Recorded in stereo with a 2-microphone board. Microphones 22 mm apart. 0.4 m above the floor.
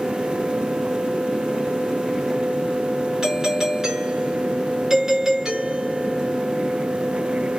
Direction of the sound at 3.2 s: 20° right (ahead or behind).